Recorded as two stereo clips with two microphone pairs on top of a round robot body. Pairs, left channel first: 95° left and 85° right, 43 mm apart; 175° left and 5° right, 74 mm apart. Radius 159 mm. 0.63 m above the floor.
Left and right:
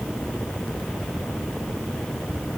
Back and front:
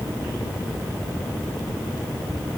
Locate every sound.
Only background noise.